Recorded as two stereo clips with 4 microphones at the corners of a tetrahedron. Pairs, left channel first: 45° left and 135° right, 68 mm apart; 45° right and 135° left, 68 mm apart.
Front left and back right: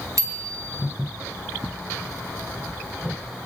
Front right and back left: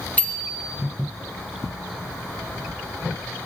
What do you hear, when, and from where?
0.2 s a bicycle bell: 110° right, 3.5 m